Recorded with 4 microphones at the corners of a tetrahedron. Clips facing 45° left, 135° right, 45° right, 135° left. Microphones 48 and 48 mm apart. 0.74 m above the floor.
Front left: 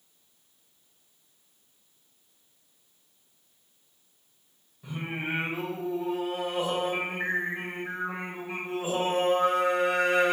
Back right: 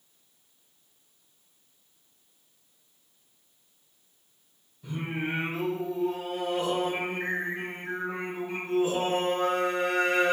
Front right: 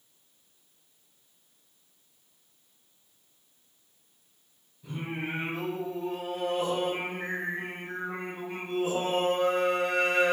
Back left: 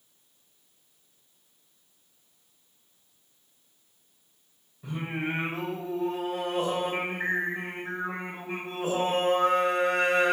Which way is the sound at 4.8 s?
120° left.